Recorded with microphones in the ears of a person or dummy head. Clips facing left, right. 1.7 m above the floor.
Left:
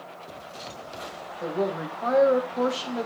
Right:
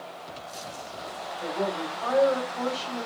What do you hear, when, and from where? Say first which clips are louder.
1.4 s a woman speaking: left 2 dB; 35° left (ahead or behind), 2.5 m; by 3.1 s 55° left (ahead or behind), 1.9 m